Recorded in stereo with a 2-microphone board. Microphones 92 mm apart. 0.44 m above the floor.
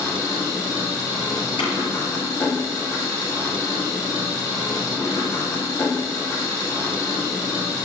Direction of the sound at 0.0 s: 35° left (ahead or behind).